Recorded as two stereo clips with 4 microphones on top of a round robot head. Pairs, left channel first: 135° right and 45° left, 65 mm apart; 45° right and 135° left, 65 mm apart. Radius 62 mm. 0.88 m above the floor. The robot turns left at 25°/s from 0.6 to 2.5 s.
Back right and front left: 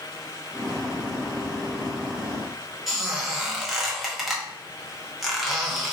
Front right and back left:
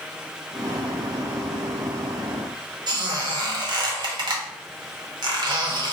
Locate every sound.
2.9 s a squeak: 130° left, 0.9 m